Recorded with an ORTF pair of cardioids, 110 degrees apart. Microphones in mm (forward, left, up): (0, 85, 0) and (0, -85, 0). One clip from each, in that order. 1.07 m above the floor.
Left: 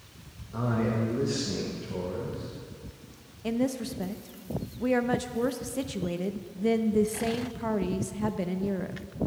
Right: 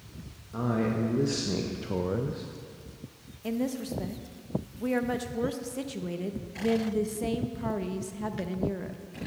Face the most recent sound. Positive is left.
turn(degrees=10)